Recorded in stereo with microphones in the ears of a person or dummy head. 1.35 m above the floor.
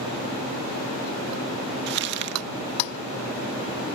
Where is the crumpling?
65° right (ahead or behind).